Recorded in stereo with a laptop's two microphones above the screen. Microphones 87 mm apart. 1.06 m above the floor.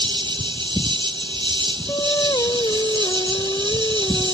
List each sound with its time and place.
0.0 s an insect: 70° right (ahead or behind)
1.9 s singing: 50° left (ahead or behind)